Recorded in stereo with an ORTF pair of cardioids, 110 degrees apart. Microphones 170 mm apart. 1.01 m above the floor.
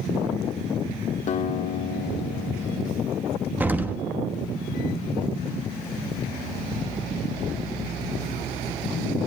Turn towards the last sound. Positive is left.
turn(degrees=-10)